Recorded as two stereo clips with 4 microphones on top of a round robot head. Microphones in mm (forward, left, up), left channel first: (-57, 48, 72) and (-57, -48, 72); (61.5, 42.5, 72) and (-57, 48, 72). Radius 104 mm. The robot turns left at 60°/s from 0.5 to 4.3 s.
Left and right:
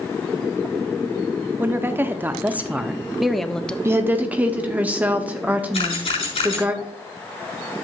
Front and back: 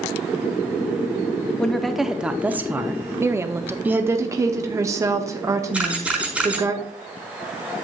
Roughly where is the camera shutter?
Left.